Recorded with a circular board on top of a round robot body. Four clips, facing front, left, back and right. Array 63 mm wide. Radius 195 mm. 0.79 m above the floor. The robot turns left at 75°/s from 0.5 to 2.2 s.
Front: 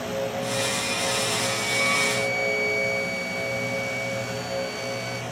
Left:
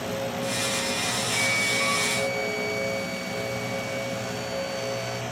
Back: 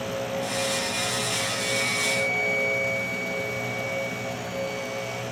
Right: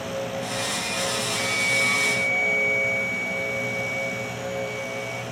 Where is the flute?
90° left, 2.0 m; by 5.2 s 25° left, 2.0 m.